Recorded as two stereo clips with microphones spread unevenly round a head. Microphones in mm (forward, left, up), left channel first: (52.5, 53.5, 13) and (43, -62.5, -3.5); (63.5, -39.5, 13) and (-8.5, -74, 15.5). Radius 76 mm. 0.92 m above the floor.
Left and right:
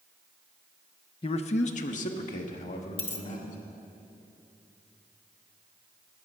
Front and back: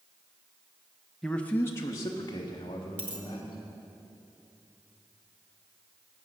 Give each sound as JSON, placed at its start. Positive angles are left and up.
{"t": 1.2, "sound": "a man speaking", "azimuth_deg": 110, "distance_m": 0.6}
{"t": 3.0, "sound": "a dropped coin", "azimuth_deg": 140, "distance_m": 0.7}